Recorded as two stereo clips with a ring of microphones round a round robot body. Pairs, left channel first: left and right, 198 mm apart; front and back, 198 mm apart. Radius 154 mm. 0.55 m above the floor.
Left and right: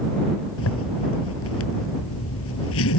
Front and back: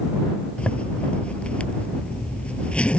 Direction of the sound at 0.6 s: 85° left.